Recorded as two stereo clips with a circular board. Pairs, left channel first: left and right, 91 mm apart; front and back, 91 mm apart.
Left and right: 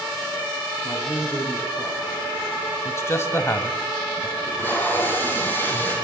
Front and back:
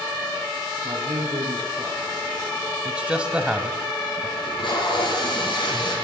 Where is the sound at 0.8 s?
150° left, 5.5 m.